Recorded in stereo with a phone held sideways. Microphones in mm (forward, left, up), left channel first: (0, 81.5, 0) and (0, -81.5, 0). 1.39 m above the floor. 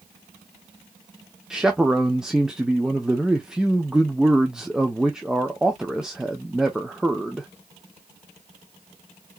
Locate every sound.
1.5 s a man speaking: 5° right (ahead or behind), 0.9 m